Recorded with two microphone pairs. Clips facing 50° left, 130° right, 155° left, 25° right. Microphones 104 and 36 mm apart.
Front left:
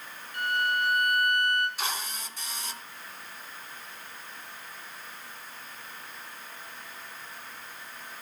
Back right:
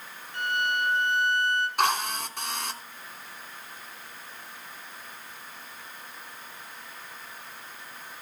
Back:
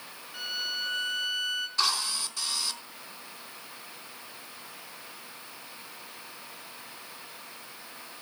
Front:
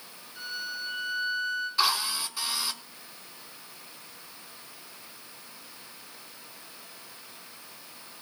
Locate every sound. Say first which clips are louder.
0.3 s a violin: even, back 2 dB; 165° left, 4 m
1.8 s a drill: back right 10 dB, front 3 dB; 105° right, 4 m